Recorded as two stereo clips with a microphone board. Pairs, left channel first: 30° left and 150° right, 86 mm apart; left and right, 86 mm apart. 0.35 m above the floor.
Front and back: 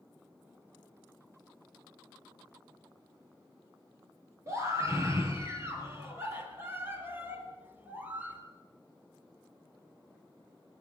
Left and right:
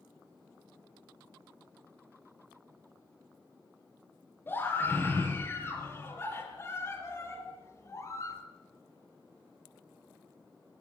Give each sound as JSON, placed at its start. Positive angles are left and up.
{"t": 4.5, "sound": "a scream", "azimuth_deg": 155, "distance_m": 8.5}